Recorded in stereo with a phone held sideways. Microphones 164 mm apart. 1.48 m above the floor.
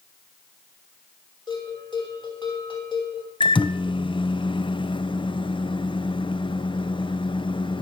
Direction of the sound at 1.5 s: 30° left (ahead or behind).